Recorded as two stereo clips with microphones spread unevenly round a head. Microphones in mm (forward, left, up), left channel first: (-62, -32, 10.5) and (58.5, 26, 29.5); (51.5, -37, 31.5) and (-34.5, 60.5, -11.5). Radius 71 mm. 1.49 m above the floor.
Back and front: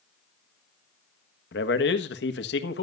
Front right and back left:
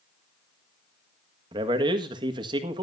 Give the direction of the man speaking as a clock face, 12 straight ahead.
5 o'clock.